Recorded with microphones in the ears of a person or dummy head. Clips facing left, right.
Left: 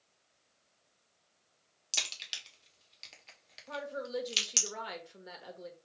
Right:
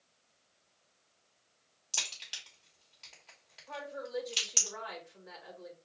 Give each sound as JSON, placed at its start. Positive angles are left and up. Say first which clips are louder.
{"t": 1.9, "sound": "a crack", "louder": "left 1 dB", "side_deg": 35, "distance_m": 1.4}
{"t": 3.7, "sound": "a woman speaking", "louder": "left 2 dB", "side_deg": 45, "distance_m": 2.0}